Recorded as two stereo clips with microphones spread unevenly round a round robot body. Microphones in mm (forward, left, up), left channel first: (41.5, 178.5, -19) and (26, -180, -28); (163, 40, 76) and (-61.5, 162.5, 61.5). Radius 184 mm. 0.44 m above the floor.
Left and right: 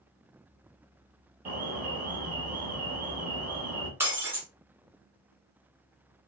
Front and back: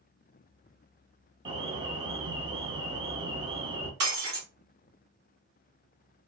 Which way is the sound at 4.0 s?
175° right.